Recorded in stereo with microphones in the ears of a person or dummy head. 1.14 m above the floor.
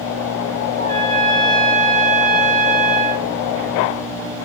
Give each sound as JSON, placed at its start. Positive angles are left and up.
{"t": 0.8, "sound": "a trumpet", "side_deg": 65, "distance_m": 3.0}